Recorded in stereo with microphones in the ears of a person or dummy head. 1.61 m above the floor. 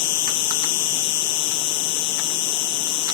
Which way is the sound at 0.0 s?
60° left (ahead or behind).